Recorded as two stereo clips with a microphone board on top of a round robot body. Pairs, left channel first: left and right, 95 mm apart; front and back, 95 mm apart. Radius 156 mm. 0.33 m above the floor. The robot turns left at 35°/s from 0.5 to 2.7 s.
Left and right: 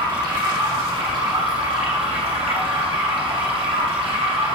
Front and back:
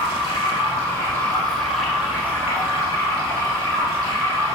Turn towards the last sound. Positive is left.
turn(degrees=-120)